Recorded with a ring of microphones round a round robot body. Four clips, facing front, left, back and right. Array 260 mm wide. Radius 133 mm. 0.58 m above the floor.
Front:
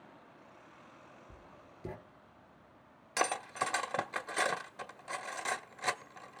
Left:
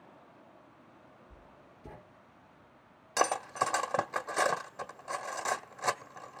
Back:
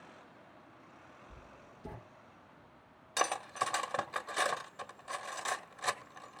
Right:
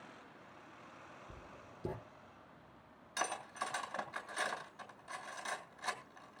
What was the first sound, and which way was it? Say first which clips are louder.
Writing: right 2 dB, even; 65° right.